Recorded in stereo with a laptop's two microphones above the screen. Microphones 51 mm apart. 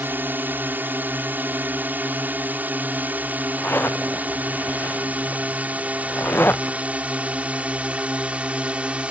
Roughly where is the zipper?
Left.